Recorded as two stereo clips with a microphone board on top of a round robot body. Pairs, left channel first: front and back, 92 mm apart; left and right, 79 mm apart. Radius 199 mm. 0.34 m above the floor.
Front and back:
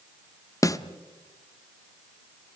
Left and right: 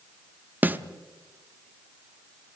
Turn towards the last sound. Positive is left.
turn(degrees=-30)